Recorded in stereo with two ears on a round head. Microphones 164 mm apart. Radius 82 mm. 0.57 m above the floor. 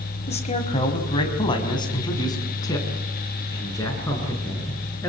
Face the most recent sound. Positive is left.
turn(degrees=15)  # may be behind; listen again after turning